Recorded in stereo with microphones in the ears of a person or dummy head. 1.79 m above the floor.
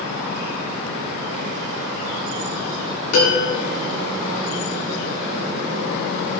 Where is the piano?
85° left, 6 m.